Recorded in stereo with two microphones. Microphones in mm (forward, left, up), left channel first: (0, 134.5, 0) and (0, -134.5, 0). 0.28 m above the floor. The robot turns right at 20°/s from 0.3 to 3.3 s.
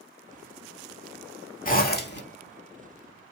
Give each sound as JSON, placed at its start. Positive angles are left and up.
{"t": 1.6, "sound": "a zipper", "side_deg": 30, "distance_m": 0.7}